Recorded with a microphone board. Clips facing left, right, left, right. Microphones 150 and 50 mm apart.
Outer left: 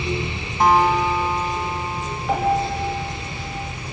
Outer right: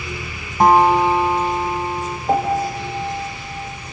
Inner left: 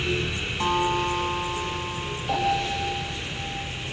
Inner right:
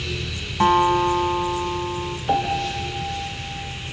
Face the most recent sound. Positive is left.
turn(degrees=-35)  # may be behind; listen again after turning